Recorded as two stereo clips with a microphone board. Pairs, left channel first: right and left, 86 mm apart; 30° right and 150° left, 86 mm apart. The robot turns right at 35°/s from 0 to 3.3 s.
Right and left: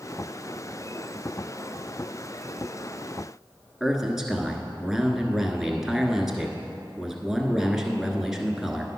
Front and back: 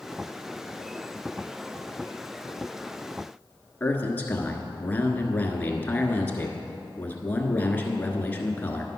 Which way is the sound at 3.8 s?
10° left.